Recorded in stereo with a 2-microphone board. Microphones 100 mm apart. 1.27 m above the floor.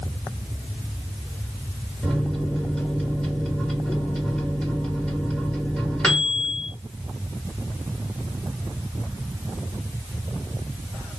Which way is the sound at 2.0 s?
10° left (ahead or behind).